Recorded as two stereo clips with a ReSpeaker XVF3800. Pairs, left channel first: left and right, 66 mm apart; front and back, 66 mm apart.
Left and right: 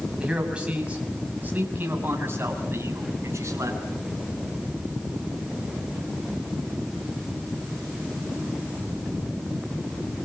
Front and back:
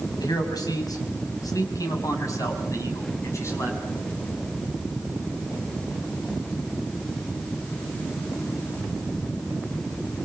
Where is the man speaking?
10° right, 6 m; by 3.8 s 45° right, 7.5 m.